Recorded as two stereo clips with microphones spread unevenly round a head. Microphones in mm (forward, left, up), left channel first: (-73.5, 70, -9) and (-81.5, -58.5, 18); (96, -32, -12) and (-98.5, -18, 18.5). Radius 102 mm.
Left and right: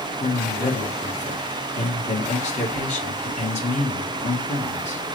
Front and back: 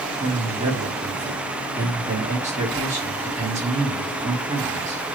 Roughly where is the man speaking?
Behind left.